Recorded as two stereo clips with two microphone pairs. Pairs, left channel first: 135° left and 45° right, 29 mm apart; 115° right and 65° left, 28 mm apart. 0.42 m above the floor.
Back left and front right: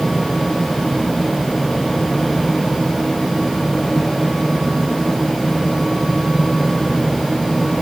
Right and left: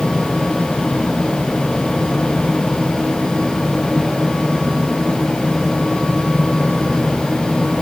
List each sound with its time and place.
Only background noise.